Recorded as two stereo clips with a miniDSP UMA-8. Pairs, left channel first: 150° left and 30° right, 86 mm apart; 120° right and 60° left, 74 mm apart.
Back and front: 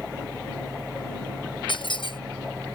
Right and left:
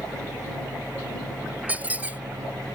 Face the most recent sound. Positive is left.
turn(degrees=130)